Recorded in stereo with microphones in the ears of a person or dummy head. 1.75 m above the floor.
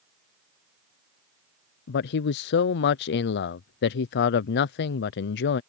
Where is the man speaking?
50° left (ahead or behind).